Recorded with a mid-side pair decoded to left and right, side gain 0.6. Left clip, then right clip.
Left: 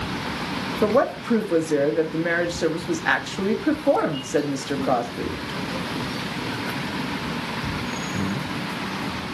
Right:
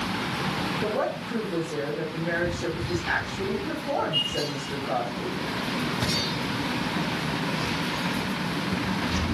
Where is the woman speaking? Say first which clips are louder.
Left 12 dB; 65° left, 2 m.